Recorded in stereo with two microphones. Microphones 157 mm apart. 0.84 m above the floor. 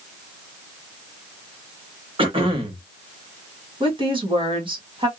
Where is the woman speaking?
35° right (ahead or behind), 1.3 m.